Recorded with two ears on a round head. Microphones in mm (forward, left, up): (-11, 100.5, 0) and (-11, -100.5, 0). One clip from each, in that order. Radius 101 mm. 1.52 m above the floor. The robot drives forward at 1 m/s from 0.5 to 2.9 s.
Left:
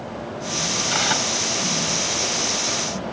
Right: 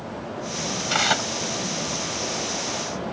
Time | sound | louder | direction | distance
0.9 | tearing paper | right 1 dB | 25° right (ahead or behind) | ?